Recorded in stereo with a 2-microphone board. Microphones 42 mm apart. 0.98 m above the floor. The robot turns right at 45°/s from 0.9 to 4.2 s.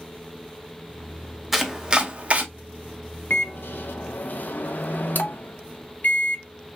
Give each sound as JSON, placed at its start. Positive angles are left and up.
{"t": 1.5, "sound": "chopping", "side_deg": -5, "distance_m": 0.7}
{"t": 3.3, "sound": "a microwave", "azimuth_deg": 75, "distance_m": 0.5}